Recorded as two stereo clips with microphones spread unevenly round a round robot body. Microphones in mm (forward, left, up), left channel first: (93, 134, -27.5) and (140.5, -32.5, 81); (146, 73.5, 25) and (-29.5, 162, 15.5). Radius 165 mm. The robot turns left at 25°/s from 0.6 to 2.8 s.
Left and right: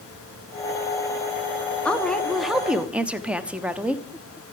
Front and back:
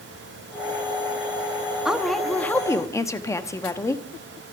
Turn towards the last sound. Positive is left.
turn(degrees=45)